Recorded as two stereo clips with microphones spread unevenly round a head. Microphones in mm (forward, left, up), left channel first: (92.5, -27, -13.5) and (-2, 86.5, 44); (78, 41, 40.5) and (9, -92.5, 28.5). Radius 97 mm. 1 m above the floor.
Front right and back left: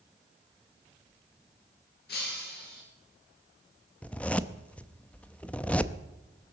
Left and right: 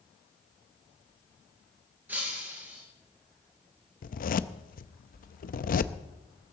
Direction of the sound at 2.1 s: 40° right.